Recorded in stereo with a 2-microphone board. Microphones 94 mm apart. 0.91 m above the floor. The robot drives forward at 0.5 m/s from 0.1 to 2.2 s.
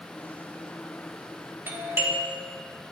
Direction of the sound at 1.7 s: 25° right (ahead or behind).